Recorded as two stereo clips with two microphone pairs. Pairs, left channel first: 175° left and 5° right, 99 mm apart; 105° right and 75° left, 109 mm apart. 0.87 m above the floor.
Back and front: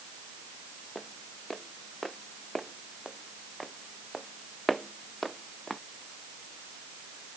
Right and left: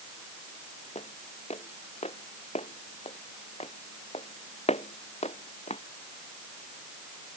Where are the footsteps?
95° right.